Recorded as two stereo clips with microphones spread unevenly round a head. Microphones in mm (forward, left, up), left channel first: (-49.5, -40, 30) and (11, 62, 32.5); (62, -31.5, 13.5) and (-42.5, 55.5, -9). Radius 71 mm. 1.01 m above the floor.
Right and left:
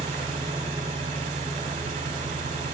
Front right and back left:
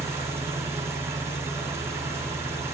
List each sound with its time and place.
0.0 s an engine running: 70° left, 1.8 m